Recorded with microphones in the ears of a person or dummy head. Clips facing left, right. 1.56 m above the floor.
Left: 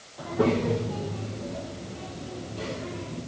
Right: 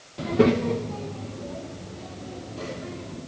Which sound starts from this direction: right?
A child speaking, at 0.2 s.